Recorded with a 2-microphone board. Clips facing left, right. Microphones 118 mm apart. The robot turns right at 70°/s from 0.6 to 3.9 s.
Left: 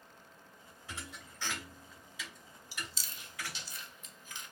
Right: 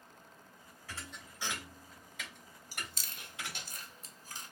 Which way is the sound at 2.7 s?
45° right (ahead or behind).